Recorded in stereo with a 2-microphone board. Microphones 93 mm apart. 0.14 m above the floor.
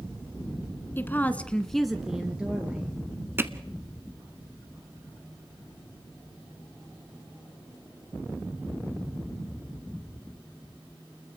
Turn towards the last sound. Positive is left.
turn(degrees=-25)  # may be behind; listen again after turning